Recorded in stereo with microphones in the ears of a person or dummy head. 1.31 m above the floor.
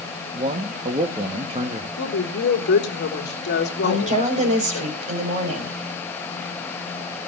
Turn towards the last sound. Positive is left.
turn(degrees=-40)  # may be behind; listen again after turning